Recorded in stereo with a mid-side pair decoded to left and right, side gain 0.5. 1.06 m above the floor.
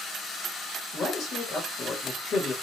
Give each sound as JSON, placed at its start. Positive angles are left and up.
{"t": 0.9, "sound": "a man speaking", "azimuth_deg": 55, "distance_m": 1.2}